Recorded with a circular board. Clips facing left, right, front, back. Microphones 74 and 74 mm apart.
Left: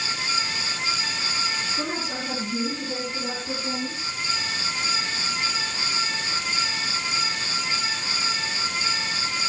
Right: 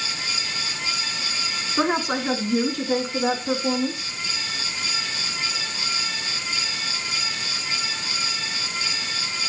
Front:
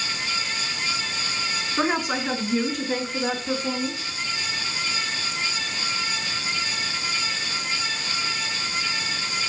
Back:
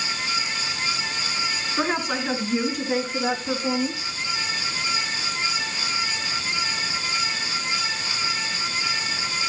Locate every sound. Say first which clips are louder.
1.8 s a woman speaking: right 7 dB, front 1 dB; 80° right, 4 m; by 4.2 s 110° right, 4.5 m